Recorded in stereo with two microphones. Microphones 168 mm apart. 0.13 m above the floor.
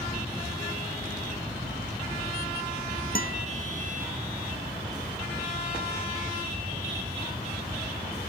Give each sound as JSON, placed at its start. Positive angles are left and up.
{"t": 3.1, "sound": "a guitar", "side_deg": 60}